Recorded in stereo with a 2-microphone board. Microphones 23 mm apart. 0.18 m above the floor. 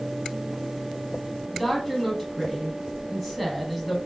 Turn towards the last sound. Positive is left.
turn(degrees=-5)  # may be behind; listen again after turning